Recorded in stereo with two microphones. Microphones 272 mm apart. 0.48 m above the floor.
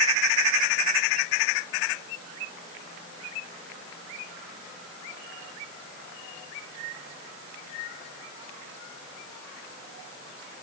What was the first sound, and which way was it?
Only background noise.